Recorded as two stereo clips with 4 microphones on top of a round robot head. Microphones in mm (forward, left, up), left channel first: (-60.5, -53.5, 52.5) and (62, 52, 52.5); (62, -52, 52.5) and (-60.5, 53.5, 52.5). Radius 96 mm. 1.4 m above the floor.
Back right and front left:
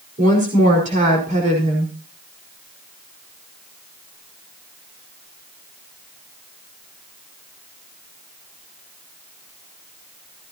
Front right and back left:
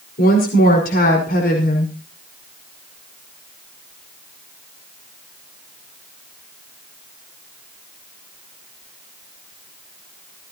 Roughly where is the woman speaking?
Ahead.